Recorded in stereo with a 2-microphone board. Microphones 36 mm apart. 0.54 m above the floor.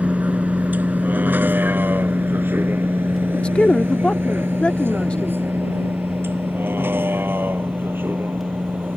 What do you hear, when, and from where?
0.0 s a vehicle: 50° right (ahead or behind); by 9.0 s 75° right (ahead or behind)
3.3 s a man speaking: 30° left (ahead or behind)